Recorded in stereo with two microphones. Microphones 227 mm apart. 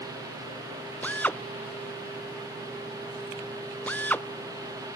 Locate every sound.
1.0 s a drill: 5° left (ahead or behind)